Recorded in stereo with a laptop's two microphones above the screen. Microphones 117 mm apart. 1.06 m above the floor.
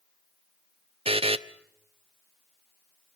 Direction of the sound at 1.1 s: 55° right (ahead or behind).